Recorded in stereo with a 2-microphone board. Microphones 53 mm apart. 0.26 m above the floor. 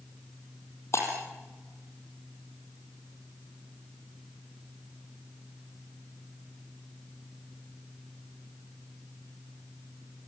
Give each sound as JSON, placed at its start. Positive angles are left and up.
{"t": 0.9, "sound": "breaking glass", "side_deg": 55, "distance_m": 5.5}